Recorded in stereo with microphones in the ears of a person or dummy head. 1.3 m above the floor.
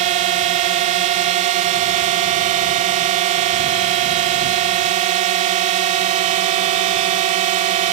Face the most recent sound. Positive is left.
turn(degrees=-40)  # may be behind; listen again after turning